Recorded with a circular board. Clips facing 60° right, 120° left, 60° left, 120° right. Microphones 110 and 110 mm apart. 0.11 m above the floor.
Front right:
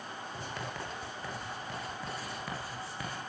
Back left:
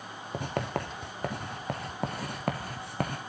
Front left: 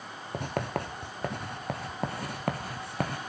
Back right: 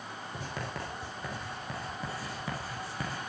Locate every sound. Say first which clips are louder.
0.3 s writing: back left 10 dB, front left 8 dB; 90° left, 3 m